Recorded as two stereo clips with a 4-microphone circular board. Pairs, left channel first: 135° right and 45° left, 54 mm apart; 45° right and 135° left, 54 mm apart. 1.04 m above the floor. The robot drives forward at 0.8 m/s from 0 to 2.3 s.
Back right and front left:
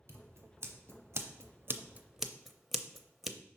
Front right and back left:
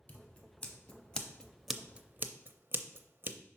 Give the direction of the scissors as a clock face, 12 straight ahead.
12 o'clock.